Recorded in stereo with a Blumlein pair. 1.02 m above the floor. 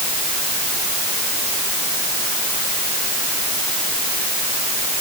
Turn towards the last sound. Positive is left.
No sound to turn to.